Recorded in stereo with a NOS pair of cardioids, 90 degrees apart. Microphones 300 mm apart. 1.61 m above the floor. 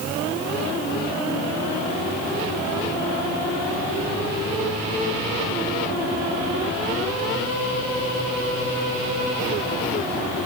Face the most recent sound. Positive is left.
No sound to turn to.